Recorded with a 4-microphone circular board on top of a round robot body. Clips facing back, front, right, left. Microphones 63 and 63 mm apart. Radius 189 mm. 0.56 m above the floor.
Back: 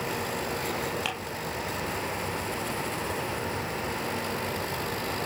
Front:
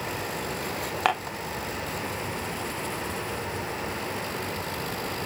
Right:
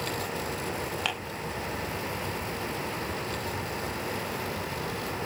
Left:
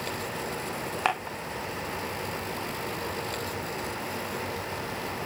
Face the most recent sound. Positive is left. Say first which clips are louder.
# front 8 dB, left 5 dB
turn(degrees=40)